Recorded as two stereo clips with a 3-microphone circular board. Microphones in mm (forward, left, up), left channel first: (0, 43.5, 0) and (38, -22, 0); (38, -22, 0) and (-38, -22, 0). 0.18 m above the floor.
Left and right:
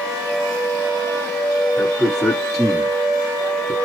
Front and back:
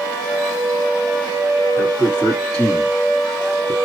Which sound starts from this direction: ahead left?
A man speaking, at 1.8 s.